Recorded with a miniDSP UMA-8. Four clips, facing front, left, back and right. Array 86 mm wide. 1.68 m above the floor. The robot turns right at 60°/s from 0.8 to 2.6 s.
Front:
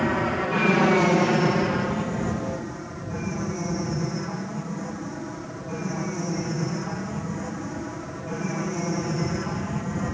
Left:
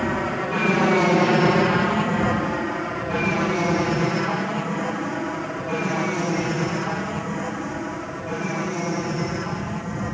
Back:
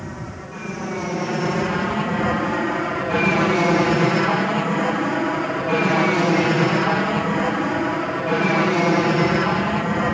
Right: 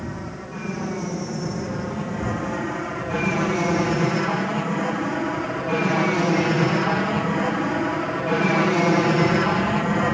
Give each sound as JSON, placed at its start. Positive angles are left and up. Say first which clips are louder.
{"t": 0.0, "sound": "an aircraft", "louder": "left 9 dB, front 10 dB", "azimuth_deg": 50}